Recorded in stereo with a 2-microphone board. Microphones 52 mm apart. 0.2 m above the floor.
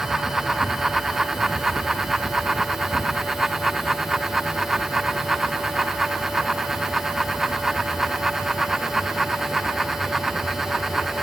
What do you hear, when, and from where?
Only background noise.